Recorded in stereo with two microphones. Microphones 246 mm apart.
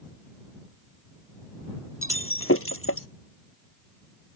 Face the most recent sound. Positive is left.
turn(degrees=65)  # may be behind; listen again after turning